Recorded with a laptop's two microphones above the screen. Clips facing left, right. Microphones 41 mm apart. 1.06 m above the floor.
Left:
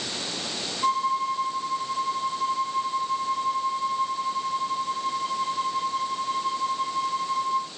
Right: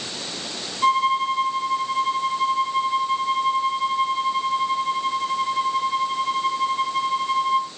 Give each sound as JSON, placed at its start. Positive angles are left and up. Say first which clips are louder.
{"t": 0.8, "sound": "a violin", "louder": "right 5 dB", "side_deg": -80, "distance_m": 2.0}